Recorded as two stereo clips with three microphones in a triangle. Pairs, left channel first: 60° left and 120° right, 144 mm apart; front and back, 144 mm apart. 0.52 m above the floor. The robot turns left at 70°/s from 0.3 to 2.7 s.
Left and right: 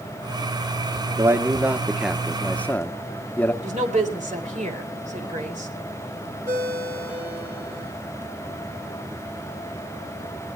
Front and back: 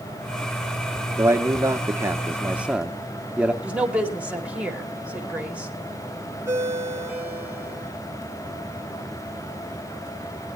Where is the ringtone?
105° right, 5 m.